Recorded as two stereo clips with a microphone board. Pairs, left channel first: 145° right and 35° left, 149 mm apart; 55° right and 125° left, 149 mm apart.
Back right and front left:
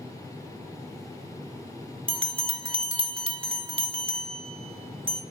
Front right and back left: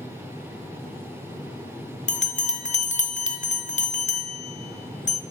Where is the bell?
20° right, 0.6 m.